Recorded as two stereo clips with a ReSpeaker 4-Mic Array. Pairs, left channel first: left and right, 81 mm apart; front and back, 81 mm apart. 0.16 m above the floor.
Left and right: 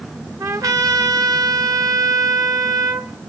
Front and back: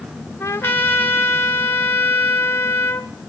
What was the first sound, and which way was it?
A trumpet, 55° right.